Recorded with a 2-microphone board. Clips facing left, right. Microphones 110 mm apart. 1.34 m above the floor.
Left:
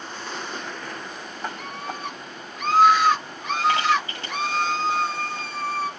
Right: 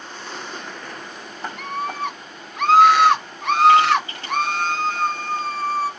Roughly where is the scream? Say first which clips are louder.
Right 6 dB; right.